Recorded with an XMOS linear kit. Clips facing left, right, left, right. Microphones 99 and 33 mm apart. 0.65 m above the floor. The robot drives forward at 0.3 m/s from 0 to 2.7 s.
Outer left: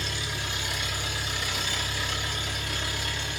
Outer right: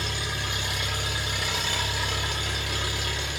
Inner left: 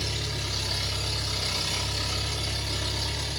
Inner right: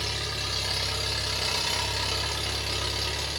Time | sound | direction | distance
0.0 | an engine running | 55° right (ahead or behind) | 1.3 m